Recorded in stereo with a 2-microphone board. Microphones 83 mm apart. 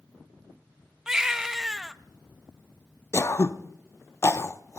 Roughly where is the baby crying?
Centre.